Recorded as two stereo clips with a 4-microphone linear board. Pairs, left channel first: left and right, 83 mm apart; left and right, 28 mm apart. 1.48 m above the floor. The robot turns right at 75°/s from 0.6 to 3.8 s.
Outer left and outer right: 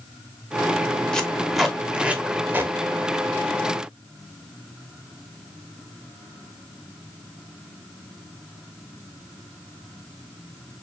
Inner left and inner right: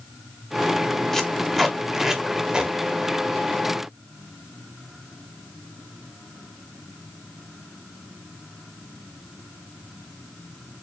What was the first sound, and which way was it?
Tape being pulled, 10° left (ahead or behind).